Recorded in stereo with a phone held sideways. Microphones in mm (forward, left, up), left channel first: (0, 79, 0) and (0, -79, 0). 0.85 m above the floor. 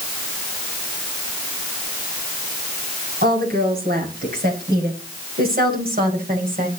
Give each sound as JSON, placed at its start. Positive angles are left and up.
{"t": 3.2, "sound": "a woman speaking", "side_deg": -75, "distance_m": 7.5}